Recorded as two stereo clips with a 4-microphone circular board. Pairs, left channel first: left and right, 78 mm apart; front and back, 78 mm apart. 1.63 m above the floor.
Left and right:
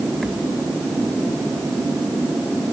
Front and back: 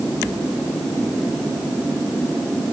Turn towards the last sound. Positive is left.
No sound to turn to.